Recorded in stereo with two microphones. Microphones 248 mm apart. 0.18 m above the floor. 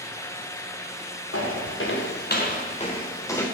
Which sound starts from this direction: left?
Footsteps, at 1.3 s.